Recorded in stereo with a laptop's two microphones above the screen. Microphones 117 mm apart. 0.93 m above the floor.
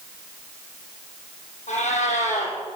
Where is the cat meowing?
80° left, 5.5 m.